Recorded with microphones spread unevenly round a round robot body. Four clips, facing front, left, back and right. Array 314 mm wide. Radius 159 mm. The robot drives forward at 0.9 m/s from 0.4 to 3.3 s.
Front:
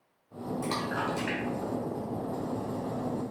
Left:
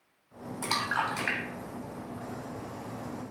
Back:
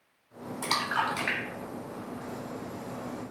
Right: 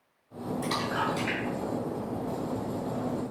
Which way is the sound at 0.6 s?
130° left.